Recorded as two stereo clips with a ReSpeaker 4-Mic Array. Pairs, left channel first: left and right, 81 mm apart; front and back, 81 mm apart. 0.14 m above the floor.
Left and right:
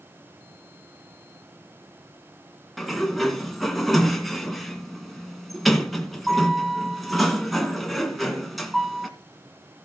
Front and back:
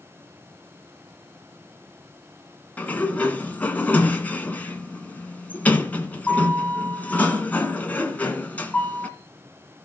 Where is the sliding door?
Straight ahead, 1.7 m.